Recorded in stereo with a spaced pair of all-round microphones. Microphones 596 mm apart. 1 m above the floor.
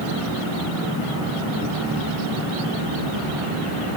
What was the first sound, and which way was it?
Only background noise.